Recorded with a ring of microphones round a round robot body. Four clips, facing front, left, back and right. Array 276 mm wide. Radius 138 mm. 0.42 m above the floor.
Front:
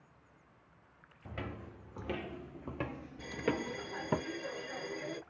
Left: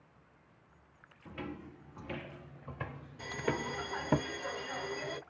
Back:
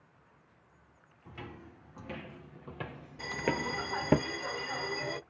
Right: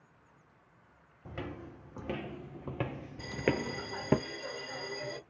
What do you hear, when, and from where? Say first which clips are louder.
1.2 s footsteps: right 1 dB, front 3 dB; 55° right, 1.4 m; by 4.2 s 155° right, 0.6 m
3.2 s a bell: right 3 dB, back 2 dB; 170° left, 1.4 m